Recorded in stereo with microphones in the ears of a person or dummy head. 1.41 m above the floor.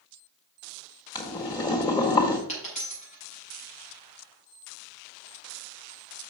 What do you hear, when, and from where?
1.1 s boiling: 20° left (ahead or behind), 1.6 m
2.5 s a dropped coin: 35° left (ahead or behind), 4 m